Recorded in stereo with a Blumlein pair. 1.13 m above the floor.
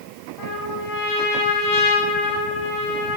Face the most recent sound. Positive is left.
turn(degrees=30)